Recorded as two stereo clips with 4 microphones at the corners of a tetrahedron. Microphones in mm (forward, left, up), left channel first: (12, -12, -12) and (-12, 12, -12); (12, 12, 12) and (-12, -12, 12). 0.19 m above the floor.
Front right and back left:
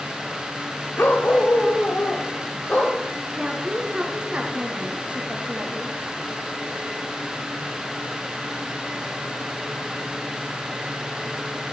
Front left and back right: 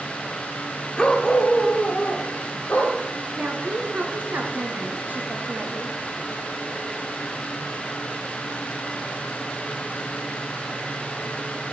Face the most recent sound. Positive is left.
turn(degrees=-170)